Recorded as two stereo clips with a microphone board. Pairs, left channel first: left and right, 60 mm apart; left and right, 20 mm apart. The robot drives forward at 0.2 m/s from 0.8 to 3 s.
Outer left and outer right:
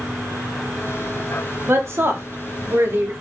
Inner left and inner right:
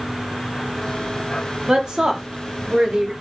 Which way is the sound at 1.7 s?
45° right (ahead or behind).